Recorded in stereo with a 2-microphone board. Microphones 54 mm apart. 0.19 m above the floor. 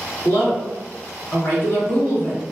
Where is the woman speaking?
45° left (ahead or behind), 1.5 m.